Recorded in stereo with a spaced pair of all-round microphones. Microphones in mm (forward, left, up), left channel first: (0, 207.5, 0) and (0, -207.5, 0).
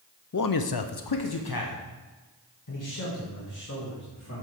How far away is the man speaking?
About 0.6 m.